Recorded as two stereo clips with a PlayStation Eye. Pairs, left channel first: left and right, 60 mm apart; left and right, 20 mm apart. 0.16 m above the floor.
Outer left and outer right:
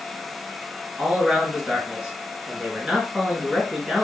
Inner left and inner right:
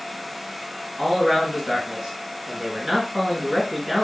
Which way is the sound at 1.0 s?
10° right (ahead or behind).